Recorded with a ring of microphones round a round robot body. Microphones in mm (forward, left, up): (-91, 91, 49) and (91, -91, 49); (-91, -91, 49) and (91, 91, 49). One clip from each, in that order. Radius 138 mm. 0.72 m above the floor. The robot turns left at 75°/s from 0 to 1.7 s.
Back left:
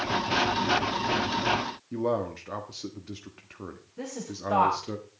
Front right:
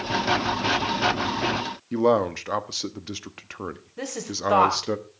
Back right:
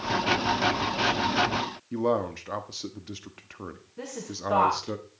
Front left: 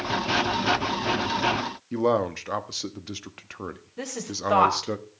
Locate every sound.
1.9 s a man speaking: 20° right, 1.1 m
4.0 s a woman speaking: 10° right, 3.5 m